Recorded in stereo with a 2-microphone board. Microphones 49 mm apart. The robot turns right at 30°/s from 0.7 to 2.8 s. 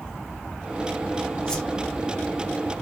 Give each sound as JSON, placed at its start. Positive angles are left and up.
{"t": 1.5, "sound": "a whoosh", "side_deg": 20, "distance_m": 1.0}